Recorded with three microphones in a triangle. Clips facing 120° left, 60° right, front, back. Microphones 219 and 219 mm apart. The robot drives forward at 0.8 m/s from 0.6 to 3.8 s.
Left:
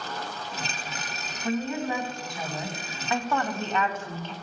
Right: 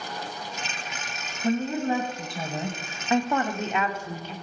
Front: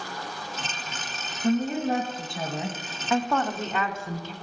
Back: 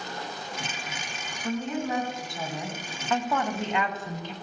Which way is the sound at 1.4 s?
20° right.